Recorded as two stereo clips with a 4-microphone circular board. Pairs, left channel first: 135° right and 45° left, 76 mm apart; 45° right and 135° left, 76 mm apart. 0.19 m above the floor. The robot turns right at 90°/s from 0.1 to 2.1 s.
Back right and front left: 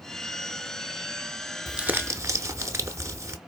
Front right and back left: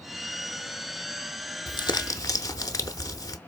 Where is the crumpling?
45° right, 0.6 m; by 3.4 s 5° right, 0.6 m.